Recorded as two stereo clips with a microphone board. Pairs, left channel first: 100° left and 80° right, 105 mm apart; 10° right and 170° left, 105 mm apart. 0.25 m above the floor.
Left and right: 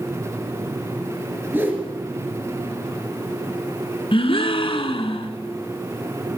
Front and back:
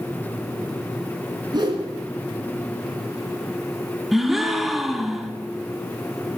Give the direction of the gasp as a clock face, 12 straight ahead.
9 o'clock.